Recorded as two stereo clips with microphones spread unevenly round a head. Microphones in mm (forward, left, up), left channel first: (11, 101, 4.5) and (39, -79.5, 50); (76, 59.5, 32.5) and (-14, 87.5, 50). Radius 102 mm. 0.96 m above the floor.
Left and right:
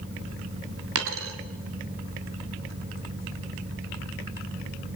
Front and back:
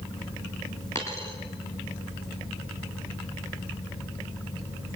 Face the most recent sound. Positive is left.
turn(degrees=-95)